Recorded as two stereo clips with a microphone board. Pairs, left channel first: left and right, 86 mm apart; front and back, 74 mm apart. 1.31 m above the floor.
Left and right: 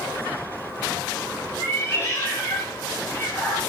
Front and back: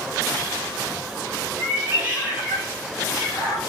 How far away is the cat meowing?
About 1.2 m.